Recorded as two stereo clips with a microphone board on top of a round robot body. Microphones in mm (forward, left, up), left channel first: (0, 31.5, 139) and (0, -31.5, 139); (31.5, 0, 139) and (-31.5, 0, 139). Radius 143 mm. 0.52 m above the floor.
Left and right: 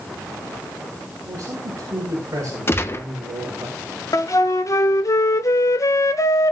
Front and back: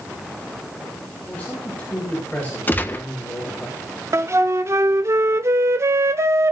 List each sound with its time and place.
1.2 s a man speaking: 65° right, 5.5 m
2.7 s a gunshot: 50° left, 1.5 m
4.1 s a flute: 130° left, 0.5 m